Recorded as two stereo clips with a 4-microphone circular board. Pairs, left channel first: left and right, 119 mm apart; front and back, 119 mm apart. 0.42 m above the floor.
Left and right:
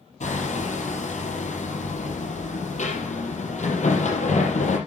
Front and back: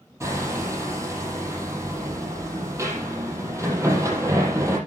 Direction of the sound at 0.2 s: 110° left.